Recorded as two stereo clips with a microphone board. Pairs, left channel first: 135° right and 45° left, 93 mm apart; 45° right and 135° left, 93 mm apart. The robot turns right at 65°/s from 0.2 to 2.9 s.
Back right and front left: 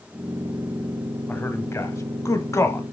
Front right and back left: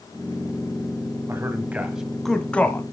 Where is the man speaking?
165° left, 1.3 m; by 2.8 s 90° right, 1.3 m.